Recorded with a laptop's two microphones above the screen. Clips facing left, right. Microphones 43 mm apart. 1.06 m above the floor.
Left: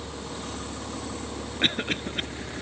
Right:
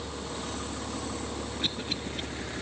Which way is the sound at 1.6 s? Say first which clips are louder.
Left 10 dB; 50° left (ahead or behind).